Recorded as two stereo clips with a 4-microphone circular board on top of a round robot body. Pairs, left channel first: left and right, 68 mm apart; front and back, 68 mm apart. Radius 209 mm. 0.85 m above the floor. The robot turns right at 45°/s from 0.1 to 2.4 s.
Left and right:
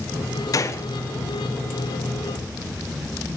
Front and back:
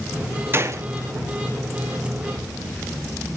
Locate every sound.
0.5 s a gunshot: 125° left, 2 m; by 0.9 s 140° left, 2 m